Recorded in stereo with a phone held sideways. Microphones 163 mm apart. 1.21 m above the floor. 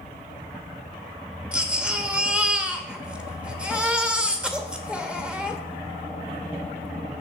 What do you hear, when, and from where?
1.5 s a baby crying: 5° right (ahead or behind), 1.1 m